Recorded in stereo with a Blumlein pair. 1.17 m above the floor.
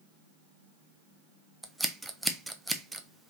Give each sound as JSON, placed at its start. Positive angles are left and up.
{"t": 1.6, "sound": "scissors", "azimuth_deg": -5, "distance_m": 0.6}